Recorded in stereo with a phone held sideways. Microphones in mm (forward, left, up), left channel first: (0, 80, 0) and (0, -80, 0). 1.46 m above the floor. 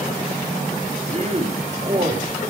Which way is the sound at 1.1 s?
45° right (ahead or behind).